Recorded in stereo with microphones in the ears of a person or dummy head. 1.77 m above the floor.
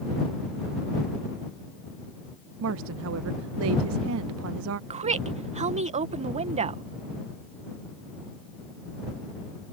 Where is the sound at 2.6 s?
70° right (ahead or behind).